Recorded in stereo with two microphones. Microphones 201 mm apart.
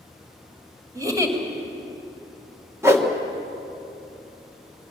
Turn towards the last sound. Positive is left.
turn(degrees=-15)  # may be behind; listen again after turning